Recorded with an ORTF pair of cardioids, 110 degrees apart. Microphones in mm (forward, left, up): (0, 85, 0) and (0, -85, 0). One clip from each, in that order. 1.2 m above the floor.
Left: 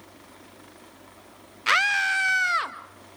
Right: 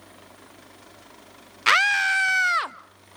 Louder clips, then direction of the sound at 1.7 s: Right 2 dB; 35° right.